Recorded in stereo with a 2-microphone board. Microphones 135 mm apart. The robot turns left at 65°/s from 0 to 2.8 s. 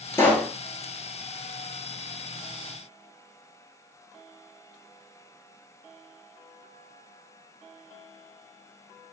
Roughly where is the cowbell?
I don't hear a cowbell.